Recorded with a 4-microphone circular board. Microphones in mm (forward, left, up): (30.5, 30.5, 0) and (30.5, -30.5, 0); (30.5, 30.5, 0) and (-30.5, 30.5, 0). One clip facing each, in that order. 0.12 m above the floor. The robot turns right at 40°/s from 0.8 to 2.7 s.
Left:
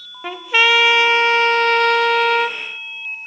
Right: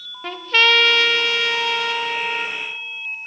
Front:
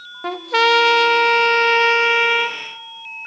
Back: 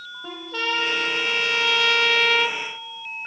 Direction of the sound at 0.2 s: 15° left.